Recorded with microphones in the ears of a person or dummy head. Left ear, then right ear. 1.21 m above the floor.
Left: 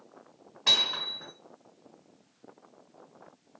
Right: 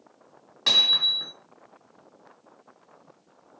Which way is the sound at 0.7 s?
50° right (ahead or behind).